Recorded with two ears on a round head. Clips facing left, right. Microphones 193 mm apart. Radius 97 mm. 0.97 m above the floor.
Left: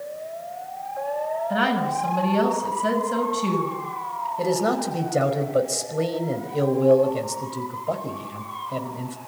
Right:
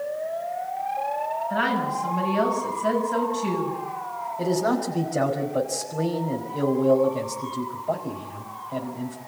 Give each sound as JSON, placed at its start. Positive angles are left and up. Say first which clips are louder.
{"t": 1.5, "sound": "a woman speaking", "louder": "left 2 dB", "side_deg": 45, "distance_m": 7.0}
{"t": 4.4, "sound": "a man speaking", "louder": "even", "side_deg": 45, "distance_m": 5.0}